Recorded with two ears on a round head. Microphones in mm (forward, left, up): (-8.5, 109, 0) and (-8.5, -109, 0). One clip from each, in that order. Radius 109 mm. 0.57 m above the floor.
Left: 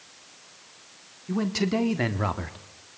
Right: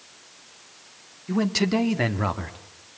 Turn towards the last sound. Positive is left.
turn(degrees=5)  # may be behind; listen again after turning